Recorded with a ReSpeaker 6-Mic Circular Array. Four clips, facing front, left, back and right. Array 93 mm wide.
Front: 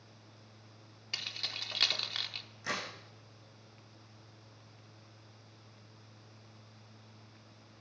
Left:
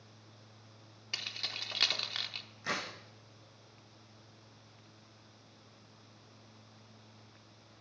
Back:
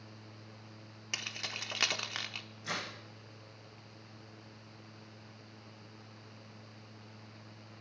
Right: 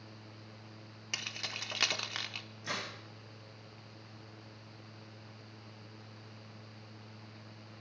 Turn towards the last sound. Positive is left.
turn(degrees=55)